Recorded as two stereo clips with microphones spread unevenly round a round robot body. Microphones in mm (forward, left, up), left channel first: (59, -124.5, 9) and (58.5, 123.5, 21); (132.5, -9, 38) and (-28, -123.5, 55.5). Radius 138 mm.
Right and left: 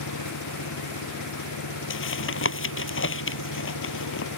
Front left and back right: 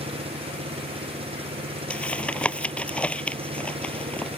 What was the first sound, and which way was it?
An engine running, 85° right.